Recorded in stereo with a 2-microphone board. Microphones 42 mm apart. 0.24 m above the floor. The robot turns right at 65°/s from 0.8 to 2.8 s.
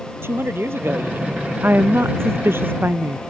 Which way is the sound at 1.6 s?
135° right.